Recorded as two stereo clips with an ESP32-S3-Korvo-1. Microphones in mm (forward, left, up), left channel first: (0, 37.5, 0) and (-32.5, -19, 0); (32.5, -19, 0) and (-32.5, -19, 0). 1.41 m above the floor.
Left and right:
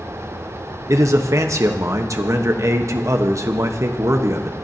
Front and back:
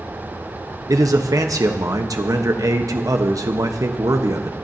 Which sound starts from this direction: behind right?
A man speaking, at 0.9 s.